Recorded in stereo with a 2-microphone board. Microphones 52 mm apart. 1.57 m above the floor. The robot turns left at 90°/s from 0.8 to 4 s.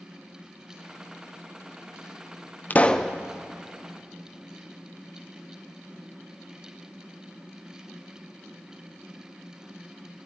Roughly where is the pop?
Ahead left.